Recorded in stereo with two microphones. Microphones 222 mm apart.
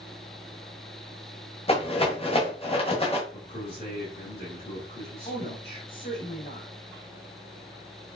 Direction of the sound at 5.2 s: 40° left (ahead or behind).